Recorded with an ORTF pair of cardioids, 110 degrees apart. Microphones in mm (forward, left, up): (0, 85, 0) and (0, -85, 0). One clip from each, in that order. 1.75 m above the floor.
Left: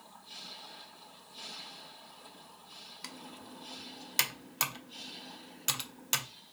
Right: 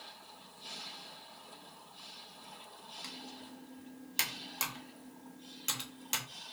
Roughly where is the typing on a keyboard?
Ahead left.